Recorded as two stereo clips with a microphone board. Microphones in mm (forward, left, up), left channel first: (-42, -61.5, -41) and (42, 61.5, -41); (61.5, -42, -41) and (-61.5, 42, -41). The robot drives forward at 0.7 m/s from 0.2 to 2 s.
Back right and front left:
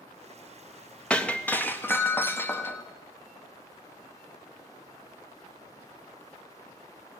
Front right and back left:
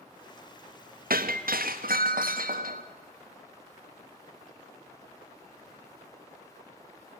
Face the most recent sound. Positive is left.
turn(degrees=160)